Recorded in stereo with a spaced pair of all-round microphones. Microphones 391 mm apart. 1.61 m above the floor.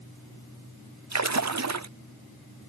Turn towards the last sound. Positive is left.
turn(degrees=-45)  # may be behind; listen again after turning